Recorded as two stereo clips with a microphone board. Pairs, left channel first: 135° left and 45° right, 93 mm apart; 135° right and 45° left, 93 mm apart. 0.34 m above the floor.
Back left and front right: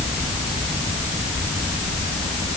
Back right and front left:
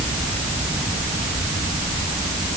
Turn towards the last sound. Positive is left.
No sound to turn to.